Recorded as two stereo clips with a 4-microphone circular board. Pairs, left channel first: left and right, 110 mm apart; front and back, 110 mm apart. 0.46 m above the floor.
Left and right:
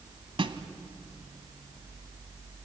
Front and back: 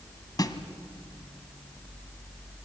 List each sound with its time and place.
0.4 s a snare drum: 50° right, 1.3 m